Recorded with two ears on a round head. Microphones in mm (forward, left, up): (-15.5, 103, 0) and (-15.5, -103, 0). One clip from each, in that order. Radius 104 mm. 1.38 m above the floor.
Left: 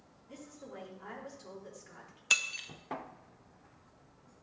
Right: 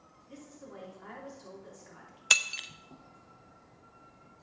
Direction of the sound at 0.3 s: 5° left (ahead or behind).